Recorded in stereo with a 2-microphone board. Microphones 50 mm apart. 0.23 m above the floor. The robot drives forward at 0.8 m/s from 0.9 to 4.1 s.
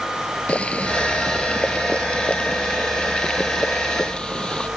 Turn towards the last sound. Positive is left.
turn(degrees=15)  # may be behind; listen again after turning